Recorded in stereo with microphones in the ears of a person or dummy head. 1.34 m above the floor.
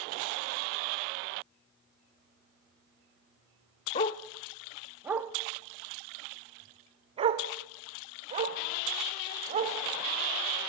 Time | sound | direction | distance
4.0 | a dog barking | 20° left (ahead or behind) | 0.8 m